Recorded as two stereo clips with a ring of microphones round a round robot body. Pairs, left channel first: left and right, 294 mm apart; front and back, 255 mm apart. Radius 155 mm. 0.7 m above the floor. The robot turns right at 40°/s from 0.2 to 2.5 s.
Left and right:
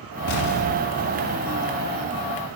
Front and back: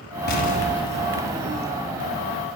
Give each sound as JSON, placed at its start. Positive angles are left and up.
{"t": 0.3, "sound": "an explosion", "azimuth_deg": 50, "distance_m": 1.1}